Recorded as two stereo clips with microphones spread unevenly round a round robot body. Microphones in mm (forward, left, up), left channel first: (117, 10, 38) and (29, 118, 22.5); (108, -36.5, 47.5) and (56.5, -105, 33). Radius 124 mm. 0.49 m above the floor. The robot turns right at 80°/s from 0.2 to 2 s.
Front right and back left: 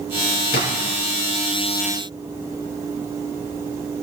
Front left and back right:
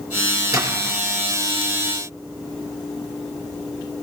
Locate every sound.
0.5 s a splash: 80° right, 3 m; by 1.0 s 45° right, 3 m